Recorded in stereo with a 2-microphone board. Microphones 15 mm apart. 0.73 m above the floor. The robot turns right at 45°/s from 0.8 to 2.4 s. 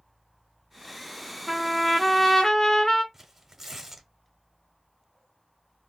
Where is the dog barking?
I don't hear a dog barking.